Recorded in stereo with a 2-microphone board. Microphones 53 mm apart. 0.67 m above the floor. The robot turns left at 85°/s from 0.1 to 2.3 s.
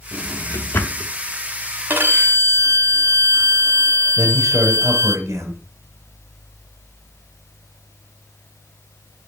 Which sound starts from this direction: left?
A drawer, at 0.1 s.